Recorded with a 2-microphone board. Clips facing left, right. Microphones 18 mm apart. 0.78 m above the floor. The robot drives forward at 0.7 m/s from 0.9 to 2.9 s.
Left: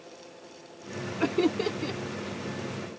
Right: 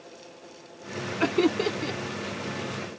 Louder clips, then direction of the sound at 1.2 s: Right 2 dB; 20° right (ahead or behind).